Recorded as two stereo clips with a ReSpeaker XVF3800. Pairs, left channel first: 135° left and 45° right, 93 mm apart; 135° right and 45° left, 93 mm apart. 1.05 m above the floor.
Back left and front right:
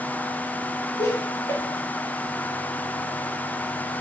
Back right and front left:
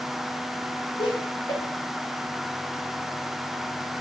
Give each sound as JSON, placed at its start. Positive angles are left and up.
{"t": 1.0, "sound": "laughter", "azimuth_deg": -165, "distance_m": 1.1}